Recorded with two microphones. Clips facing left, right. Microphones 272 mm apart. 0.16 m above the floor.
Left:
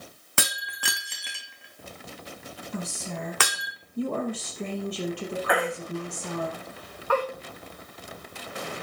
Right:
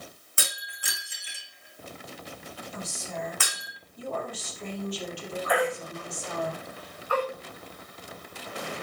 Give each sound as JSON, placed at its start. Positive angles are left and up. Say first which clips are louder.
{"t": 0.4, "sound": "breaking glass", "louder": "left 8 dB", "side_deg": 75, "distance_m": 1.5}
{"t": 2.7, "sound": "a woman speaking", "louder": "left 4 dB", "side_deg": 65, "distance_m": 4.5}
{"t": 5.5, "sound": "a baby crying", "louder": "right 1 dB", "side_deg": 75, "distance_m": 5.5}